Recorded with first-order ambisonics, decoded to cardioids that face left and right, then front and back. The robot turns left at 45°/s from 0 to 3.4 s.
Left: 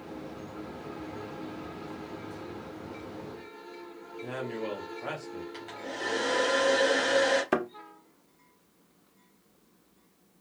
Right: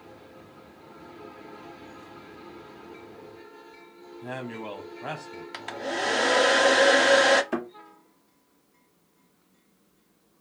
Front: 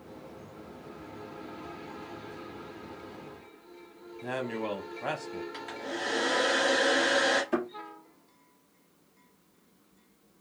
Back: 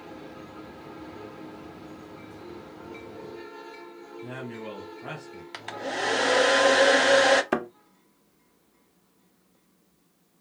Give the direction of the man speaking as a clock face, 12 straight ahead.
1 o'clock.